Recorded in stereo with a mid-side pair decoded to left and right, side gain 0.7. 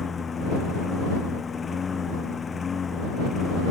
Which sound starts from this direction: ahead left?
A lawn mower, at 0.0 s.